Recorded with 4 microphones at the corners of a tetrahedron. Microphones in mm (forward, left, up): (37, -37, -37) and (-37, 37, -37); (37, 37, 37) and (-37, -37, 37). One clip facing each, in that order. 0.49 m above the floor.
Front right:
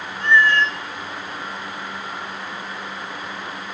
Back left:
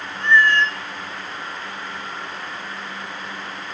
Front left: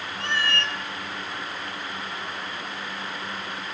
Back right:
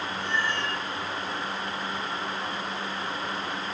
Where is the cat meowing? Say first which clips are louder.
Even, front left 3 dB; 45° left, 2 m.